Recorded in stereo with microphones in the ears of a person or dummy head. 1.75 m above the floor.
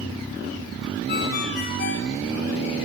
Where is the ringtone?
55° left (ahead or behind), 6.5 m.